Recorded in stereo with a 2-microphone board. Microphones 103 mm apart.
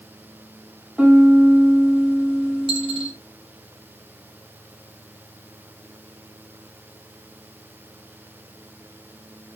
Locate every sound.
1.0 s a piano: 10° right (ahead or behind), 1.0 m
2.7 s a dropped coin: 60° right (ahead or behind), 3 m